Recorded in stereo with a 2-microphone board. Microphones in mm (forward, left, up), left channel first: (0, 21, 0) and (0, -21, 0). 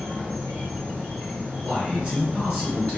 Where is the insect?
75° right (ahead or behind), 1.3 m.